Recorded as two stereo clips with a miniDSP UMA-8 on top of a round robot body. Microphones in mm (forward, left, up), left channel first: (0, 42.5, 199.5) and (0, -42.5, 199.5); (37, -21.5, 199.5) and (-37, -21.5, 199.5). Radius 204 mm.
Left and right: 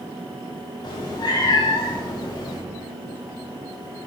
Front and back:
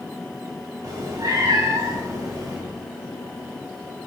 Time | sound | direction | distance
0.8 | a cat meowing | 130° left | 1.5 m